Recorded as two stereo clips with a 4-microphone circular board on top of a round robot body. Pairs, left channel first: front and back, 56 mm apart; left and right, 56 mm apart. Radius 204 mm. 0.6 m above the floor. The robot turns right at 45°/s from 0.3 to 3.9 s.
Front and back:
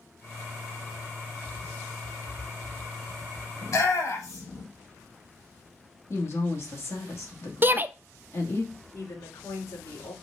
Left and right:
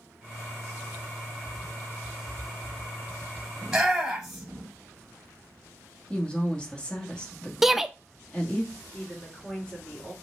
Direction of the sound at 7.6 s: 170° right.